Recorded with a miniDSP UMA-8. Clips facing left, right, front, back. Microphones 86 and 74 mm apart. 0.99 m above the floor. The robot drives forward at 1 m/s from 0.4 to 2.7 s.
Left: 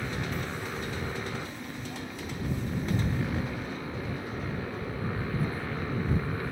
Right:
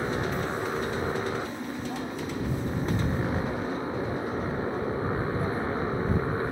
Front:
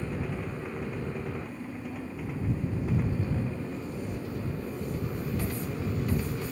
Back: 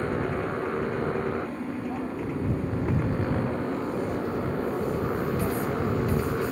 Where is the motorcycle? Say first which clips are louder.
Right 5 dB, back 7 dB; 145° right; by 6.5 s 150° right.